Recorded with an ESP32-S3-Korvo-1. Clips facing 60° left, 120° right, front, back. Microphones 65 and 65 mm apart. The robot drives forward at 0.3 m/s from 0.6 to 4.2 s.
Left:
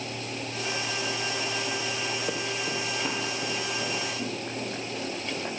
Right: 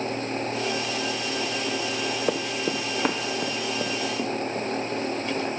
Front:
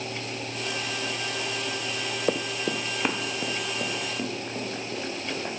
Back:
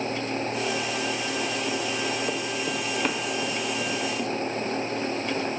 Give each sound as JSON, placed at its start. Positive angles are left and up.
{"t": 2.3, "sound": "running footsteps", "azimuth_deg": -60, "distance_m": 0.7}